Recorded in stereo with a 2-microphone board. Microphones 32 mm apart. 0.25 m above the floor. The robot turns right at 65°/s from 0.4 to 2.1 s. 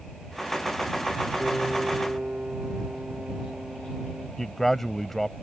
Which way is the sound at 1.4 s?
175° left.